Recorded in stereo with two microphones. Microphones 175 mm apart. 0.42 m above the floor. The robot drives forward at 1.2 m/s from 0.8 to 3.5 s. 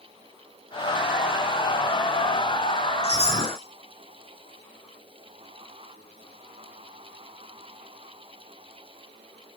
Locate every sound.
3.0 s a chime: 70° left (ahead or behind), 7.5 m; by 3.6 s 75° left (ahead or behind), 7.5 m